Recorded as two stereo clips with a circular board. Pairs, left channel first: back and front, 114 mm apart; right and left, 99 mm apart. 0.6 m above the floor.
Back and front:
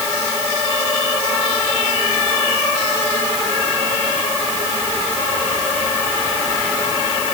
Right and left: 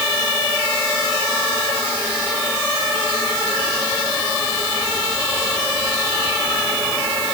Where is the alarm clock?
I don't hear an alarm clock.